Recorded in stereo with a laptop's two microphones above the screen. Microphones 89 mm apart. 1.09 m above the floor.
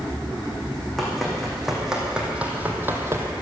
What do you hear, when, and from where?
1.0 s running footsteps: 5° left (ahead or behind), 3 m; by 3.3 s 30° right (ahead or behind), 1.8 m